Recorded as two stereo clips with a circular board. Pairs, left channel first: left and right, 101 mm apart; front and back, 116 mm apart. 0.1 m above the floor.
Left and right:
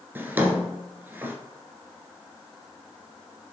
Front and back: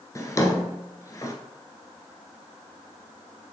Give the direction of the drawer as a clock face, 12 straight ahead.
1 o'clock.